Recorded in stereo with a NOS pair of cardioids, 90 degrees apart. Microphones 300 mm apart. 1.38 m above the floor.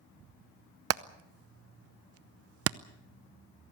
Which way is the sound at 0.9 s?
50° right.